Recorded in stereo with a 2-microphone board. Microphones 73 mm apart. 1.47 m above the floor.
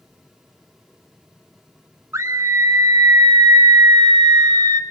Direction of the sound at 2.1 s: 45° right (ahead or behind).